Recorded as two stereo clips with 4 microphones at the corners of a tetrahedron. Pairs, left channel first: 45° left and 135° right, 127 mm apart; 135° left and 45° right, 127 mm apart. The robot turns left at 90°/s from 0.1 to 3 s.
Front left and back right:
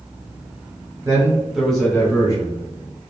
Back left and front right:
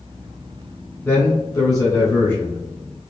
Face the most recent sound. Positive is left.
turn(degrees=15)